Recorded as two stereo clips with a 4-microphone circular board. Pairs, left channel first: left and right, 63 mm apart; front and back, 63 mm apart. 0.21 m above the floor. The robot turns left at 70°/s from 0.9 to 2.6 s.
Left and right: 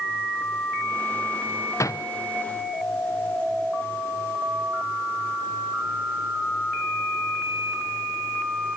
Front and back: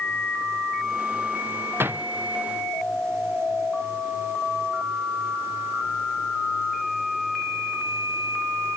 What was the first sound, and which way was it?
A door slam, 130° left.